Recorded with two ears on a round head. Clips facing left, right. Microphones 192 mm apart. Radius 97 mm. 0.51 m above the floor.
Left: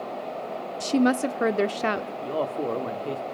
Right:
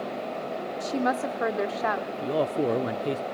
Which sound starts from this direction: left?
A woman speaking, at 0.8 s.